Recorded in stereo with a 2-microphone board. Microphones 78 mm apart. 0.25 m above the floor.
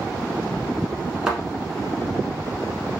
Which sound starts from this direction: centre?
A thud, at 1.3 s.